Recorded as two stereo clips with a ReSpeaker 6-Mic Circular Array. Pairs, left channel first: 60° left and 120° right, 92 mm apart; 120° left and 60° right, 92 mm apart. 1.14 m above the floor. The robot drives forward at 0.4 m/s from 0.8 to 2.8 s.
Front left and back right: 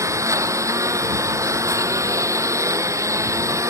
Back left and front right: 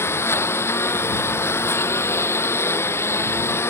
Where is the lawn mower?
175° right.